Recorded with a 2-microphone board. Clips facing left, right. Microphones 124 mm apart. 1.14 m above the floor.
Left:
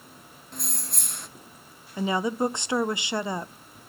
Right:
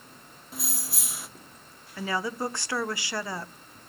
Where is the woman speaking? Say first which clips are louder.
Left 5 dB; 20° left (ahead or behind), 0.5 m.